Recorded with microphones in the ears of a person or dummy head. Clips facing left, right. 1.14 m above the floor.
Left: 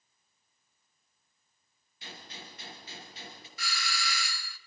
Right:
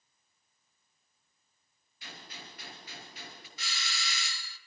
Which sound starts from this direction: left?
A gunshot, at 2.0 s.